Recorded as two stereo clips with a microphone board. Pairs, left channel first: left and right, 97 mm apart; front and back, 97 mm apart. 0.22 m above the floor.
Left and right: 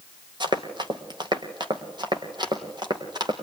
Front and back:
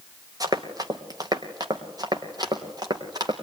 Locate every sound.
0.4 s running footsteps: 130° right, 2.5 m; by 3.3 s 135° right, 4.5 m